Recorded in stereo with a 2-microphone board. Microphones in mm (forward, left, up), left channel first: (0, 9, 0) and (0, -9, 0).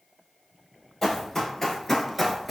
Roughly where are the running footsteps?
Centre.